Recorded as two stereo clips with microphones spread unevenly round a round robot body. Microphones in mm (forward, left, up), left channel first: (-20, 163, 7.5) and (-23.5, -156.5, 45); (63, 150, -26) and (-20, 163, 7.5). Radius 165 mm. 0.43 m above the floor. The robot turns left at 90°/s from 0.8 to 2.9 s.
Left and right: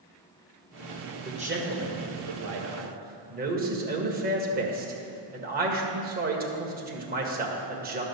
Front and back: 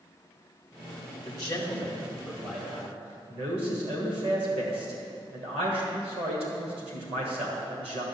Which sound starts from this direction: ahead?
A man speaking, at 1.2 s.